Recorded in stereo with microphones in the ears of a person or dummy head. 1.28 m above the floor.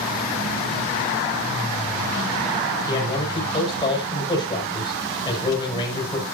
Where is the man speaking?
25° left (ahead or behind), 6 m.